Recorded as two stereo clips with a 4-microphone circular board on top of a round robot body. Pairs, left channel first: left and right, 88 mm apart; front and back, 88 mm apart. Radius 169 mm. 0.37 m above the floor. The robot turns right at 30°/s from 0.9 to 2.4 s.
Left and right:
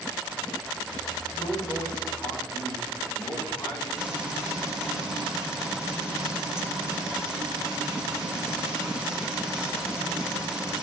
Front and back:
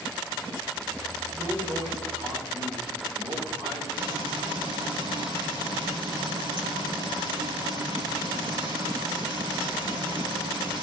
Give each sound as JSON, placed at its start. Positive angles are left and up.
{"t": 1.3, "sound": "a man speaking", "azimuth_deg": 130, "distance_m": 5.0}
{"t": 4.0, "sound": "frying", "azimuth_deg": -175, "distance_m": 5.5}